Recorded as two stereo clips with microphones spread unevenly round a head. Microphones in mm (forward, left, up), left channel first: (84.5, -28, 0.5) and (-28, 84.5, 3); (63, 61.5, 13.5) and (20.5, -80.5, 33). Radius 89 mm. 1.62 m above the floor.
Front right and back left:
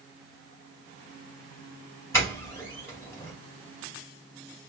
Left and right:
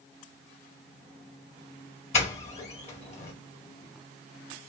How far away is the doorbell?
About 1.8 m.